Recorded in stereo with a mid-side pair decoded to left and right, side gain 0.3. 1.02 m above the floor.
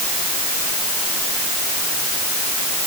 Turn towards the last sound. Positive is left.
No sound to turn to.